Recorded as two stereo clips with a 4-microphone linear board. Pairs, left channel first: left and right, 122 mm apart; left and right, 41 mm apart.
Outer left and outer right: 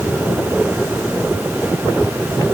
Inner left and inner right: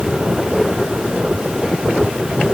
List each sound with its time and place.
Only background noise.